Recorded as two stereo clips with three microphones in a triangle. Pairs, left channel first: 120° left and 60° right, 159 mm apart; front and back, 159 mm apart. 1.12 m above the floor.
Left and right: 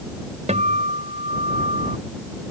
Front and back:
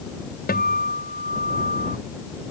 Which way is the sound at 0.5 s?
15° right.